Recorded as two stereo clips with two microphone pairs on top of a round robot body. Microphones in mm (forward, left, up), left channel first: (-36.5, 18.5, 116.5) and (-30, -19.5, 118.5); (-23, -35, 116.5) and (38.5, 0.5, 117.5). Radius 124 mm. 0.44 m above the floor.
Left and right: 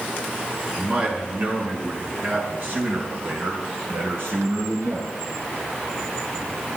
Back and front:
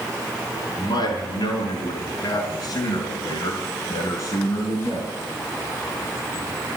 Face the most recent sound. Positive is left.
turn(degrees=-100)